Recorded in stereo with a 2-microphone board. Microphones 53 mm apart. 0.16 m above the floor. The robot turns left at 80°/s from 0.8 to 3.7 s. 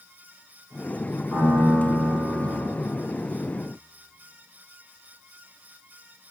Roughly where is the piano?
Ahead.